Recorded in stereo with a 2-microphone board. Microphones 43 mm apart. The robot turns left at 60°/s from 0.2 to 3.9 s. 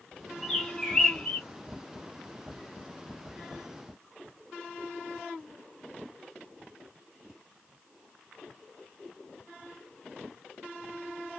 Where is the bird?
5° left (ahead or behind), 1.0 m; by 1.4 s 20° left (ahead or behind), 1.0 m.